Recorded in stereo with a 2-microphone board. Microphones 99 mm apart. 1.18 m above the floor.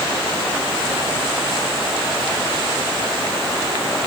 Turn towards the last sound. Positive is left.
No sound to turn to.